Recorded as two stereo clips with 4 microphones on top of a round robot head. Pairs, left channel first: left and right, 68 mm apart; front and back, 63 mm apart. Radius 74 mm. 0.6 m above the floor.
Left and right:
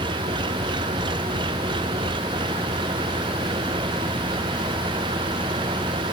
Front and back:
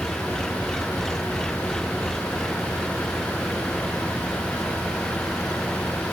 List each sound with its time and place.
0.0 s an engine running: 85° right